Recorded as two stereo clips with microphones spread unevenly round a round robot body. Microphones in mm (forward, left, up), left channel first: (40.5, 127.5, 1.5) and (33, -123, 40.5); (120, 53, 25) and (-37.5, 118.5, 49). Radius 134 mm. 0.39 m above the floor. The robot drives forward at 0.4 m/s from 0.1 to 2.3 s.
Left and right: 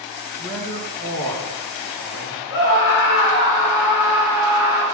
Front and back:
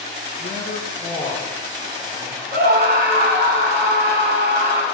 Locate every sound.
0.4 s a man speaking: 10° left, 4 m; by 2.4 s 15° left, 3.5 m
2.5 s a scream: 135° left, 3.5 m